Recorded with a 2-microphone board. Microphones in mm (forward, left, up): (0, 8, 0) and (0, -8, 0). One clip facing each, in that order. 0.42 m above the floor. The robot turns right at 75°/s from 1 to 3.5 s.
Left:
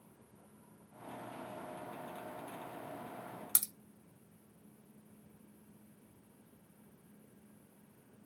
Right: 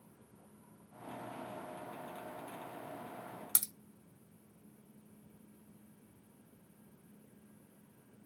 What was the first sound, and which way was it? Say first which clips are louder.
A crack: even; centre (ahead or behind).